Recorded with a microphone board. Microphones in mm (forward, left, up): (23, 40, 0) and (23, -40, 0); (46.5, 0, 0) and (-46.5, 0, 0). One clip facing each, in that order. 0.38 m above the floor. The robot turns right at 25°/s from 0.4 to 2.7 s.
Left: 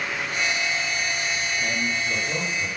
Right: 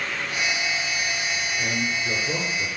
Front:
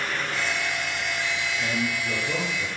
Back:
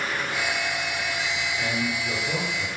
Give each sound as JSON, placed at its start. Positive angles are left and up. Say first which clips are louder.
{"t": 1.6, "sound": "a man speaking", "louder": "even, even", "azimuth_deg": -105, "distance_m": 7.5}